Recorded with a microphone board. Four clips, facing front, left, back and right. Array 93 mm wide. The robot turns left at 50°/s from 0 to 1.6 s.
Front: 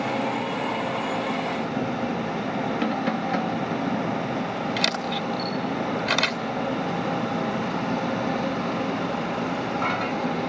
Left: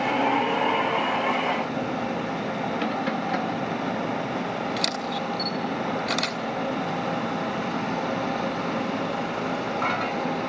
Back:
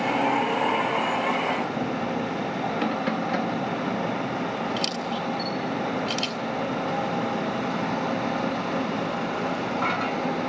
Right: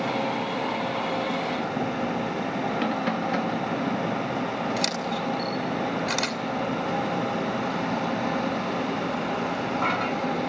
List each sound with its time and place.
4.8 s a camera shutter: 15° right, 2 m